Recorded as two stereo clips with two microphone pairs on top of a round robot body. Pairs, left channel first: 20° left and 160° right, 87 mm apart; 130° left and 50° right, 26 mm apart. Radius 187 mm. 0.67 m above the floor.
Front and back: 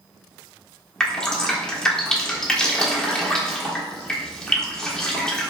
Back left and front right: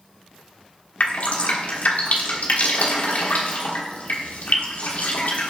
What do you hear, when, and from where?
1.0 s dripping: 100° left, 1.3 m